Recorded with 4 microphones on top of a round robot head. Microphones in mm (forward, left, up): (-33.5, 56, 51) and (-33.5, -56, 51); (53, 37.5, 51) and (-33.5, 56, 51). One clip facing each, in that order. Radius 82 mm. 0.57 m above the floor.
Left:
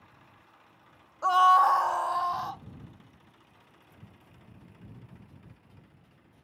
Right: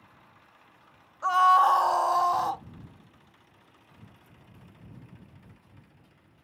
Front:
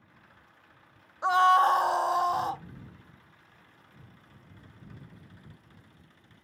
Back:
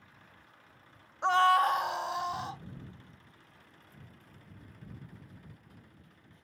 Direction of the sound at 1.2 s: 70° left.